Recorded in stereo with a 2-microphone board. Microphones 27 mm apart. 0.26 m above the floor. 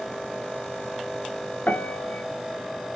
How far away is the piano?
About 0.8 m.